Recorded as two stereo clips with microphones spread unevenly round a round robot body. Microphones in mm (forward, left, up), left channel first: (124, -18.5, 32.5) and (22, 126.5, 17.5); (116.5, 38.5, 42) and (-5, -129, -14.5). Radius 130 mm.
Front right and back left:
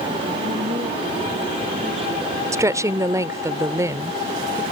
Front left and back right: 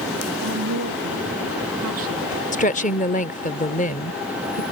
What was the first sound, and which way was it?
A woman speaking, 165° right.